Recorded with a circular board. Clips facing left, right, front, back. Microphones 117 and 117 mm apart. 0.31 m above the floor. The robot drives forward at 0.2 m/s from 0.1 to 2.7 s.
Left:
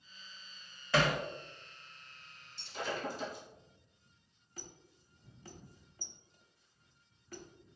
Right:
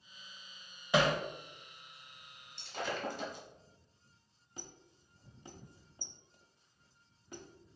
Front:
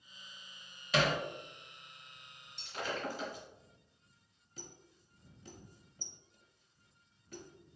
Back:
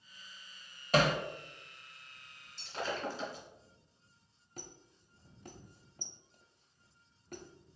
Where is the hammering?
160° right, 0.6 m.